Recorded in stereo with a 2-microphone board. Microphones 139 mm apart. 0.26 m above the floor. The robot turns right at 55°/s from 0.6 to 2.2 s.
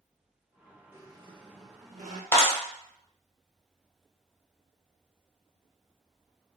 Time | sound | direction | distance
0.9 | a squeak | 160° right | 0.6 m
2.3 | a clap | 15° left (ahead or behind) | 1.0 m